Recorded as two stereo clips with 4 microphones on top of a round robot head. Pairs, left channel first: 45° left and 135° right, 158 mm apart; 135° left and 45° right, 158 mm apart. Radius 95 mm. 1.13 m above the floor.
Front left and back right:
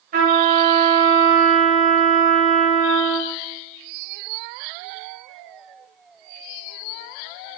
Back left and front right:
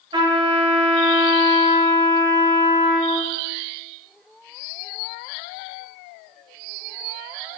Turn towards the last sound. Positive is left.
turn(degrees=-105)